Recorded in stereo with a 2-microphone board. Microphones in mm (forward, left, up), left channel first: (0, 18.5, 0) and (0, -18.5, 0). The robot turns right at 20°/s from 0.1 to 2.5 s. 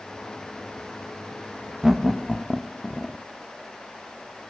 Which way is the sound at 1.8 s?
10° right (ahead or behind).